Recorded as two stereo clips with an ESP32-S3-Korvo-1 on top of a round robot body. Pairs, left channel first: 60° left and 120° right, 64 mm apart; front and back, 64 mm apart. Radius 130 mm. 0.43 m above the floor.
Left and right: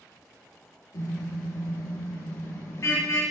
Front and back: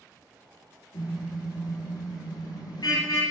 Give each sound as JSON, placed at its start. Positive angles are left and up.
{"t": 0.9, "sound": "a car horn", "azimuth_deg": 20, "distance_m": 7.0}